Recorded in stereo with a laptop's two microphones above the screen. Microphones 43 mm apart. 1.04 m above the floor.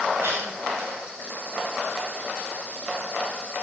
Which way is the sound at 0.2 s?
80° right.